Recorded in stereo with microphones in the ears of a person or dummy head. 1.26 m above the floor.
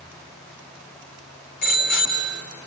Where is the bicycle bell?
60° left (ahead or behind), 3.5 m.